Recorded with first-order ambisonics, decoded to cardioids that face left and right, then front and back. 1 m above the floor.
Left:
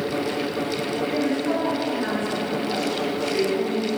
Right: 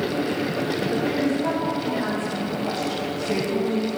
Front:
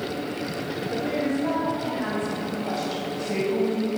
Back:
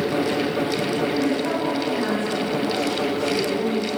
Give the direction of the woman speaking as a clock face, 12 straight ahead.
3 o'clock.